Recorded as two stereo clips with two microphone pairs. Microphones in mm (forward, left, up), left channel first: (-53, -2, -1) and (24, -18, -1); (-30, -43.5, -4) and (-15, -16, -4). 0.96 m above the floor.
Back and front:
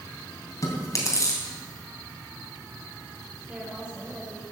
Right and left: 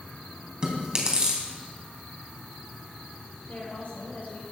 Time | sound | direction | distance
0.6 | chewing | 125° left | 3 m
3.5 | a woman speaking | 90° right | 4.5 m